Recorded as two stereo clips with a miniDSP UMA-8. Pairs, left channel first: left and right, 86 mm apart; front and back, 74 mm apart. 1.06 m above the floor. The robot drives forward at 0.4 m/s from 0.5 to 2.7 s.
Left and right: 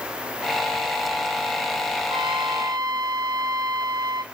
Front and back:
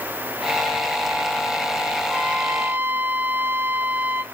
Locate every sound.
2.1 s a trumpet: 105° right, 0.9 m; by 4.2 s 120° right, 1.0 m